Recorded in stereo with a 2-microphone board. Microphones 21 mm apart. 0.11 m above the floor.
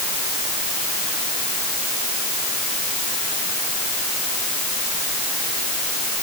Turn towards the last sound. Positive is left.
No sound to turn to.